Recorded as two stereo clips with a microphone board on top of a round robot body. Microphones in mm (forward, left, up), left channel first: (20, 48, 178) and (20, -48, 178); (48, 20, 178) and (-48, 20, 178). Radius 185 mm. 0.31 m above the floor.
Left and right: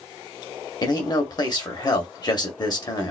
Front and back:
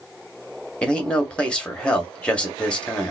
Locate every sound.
0.8 s a man speaking: 75° left, 1.9 m